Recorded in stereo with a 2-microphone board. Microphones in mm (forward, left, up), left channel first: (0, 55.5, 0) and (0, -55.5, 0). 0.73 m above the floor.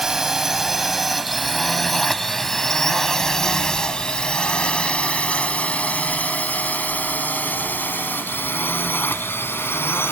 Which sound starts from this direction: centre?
A drone, at 0.0 s.